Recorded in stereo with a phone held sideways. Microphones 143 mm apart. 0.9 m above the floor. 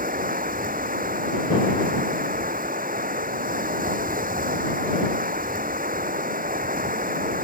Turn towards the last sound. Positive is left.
turn(degrees=-75)  # may be behind; listen again after turning